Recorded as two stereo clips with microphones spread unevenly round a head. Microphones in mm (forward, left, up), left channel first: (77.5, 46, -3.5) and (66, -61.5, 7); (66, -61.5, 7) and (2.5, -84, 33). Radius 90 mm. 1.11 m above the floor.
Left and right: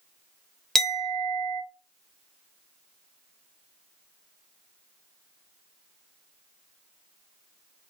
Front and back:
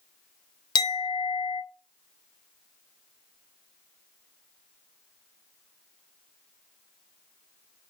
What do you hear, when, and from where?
0.8 s a clink: 5° right, 0.8 m